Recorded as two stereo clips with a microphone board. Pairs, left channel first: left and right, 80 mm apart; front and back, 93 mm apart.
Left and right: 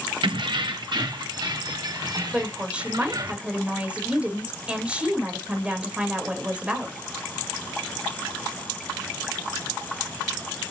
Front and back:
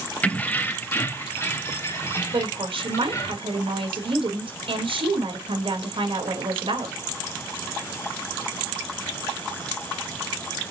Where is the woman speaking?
165° right, 4 m.